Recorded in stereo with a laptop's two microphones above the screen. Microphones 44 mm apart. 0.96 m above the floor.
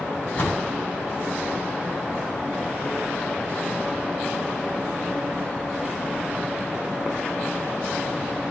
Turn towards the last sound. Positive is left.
turn(degrees=25)  # may be behind; listen again after turning